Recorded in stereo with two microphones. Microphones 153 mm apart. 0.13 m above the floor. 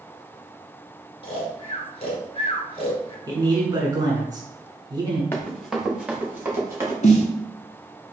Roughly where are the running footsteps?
Centre.